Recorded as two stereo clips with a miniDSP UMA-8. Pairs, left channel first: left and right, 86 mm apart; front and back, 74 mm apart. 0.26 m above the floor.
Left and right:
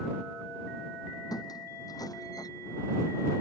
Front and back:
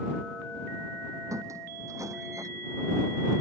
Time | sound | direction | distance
1.3 | a squeak | 135° left | ?